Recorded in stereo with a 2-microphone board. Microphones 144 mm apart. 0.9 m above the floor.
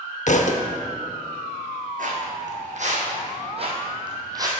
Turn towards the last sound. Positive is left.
turn(degrees=-25)  # may be behind; listen again after turning